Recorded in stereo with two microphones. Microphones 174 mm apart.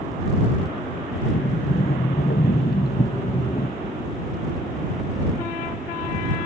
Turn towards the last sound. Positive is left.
turn(degrees=65)  # may be behind; listen again after turning